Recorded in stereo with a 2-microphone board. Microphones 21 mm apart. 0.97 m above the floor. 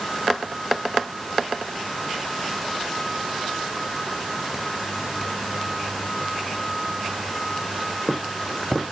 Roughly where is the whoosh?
I don't hear a whoosh.